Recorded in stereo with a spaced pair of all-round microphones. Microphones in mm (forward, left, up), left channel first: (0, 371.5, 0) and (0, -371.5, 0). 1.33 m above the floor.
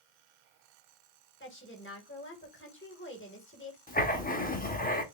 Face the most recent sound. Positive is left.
turn(degrees=10)  # may be behind; listen again after turning